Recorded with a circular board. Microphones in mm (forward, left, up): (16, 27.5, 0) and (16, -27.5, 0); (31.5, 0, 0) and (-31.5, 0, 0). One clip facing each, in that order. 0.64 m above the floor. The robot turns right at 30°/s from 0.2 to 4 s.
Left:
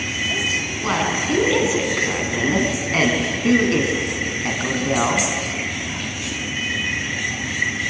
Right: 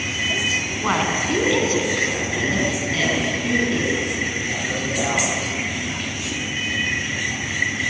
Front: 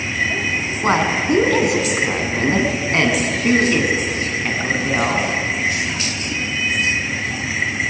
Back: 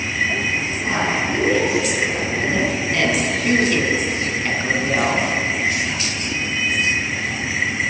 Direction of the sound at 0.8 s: 15° right.